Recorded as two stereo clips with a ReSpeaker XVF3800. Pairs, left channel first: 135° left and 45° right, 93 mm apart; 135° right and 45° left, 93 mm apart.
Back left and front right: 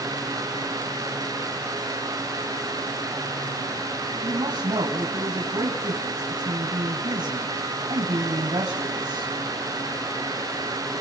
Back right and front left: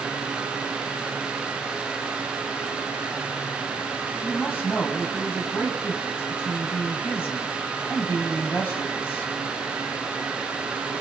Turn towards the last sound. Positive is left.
turn(degrees=-70)